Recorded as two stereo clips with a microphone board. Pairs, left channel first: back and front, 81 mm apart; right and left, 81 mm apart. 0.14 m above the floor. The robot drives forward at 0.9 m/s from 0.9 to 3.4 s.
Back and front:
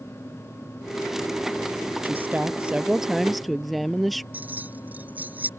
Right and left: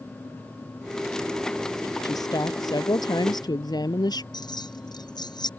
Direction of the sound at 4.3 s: 70° right.